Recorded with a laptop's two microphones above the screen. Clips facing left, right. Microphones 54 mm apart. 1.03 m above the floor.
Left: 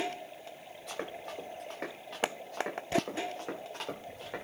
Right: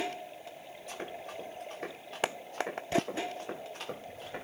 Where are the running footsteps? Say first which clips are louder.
Left 2 dB; 85° left, 8.5 m; by 4.5 s 65° left (ahead or behind), 8.5 m.